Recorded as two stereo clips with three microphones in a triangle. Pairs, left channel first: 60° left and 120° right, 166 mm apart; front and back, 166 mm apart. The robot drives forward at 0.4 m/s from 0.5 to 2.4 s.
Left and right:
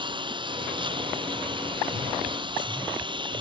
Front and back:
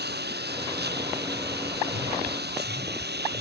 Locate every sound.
0.0 s a lawn mower: straight behind